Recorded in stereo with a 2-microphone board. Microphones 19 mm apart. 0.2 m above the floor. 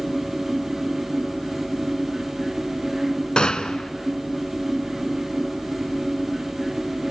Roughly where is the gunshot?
Left.